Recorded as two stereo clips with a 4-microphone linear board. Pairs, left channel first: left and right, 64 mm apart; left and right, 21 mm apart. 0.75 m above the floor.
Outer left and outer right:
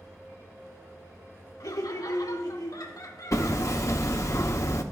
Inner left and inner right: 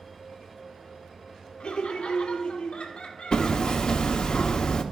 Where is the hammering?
55° left (ahead or behind), 0.8 m.